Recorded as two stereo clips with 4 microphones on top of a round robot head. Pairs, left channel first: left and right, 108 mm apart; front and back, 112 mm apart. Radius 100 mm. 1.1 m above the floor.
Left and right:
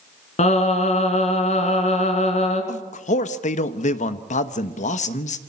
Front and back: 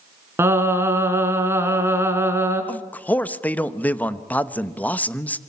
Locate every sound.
0.4 s singing: 110° left, 3 m
2.7 s a man speaking: 75° left, 1.2 m